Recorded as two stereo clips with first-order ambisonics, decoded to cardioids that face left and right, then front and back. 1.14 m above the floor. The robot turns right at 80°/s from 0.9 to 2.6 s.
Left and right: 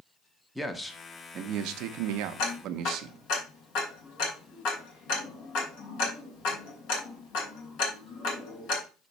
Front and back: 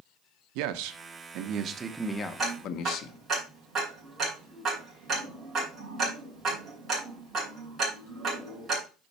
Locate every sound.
0.6 s a man speaking: straight behind, 0.8 m; by 3.2 s 45° right, 0.8 m
2.4 s ticking: 100° left, 2.5 m; by 8.8 s 115° left, 2.5 m